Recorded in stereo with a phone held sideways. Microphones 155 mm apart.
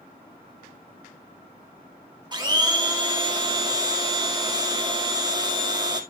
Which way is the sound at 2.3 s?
30° right (ahead or behind).